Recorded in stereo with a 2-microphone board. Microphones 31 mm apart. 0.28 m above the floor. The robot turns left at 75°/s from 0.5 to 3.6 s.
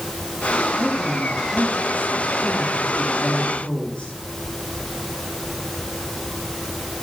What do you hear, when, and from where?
0.8 s a woman speaking: 10° right, 5 m; by 4.1 s 135° left, 5 m